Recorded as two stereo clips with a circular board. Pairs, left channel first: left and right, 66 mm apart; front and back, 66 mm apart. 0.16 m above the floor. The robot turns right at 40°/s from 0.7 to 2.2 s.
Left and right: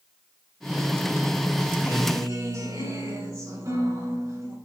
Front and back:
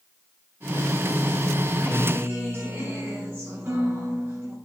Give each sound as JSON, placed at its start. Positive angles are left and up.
{"t": 1.8, "sound": "a guitar", "azimuth_deg": -135, "distance_m": 6.0}